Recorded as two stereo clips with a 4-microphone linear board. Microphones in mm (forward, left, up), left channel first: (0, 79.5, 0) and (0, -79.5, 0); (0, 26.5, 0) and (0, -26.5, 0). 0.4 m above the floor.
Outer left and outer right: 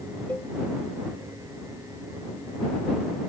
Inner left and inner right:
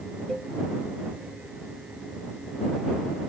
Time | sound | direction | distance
0.3 | a cowbell | 10° left (ahead or behind) | ?